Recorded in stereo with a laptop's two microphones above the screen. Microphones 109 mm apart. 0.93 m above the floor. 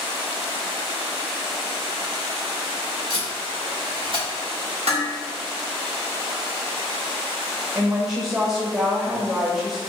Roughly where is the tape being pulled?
Right.